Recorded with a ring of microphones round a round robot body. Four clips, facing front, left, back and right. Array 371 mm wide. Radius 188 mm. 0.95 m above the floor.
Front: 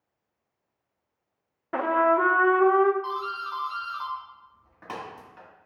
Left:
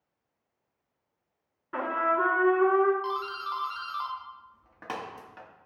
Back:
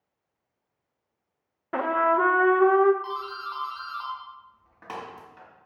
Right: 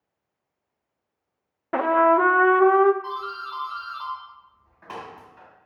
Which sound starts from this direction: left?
A doorbell, at 3.0 s.